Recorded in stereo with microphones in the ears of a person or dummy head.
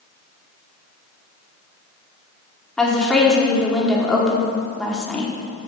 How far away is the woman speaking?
About 1.2 m.